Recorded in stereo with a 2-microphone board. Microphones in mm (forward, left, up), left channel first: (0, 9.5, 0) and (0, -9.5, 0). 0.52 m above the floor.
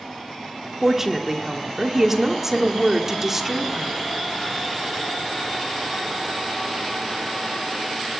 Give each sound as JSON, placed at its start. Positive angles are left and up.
{"t": 0.8, "sound": "a woman speaking", "side_deg": -20, "distance_m": 1.2}